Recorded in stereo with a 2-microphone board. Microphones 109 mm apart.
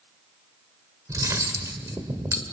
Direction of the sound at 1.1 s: 30° right (ahead or behind).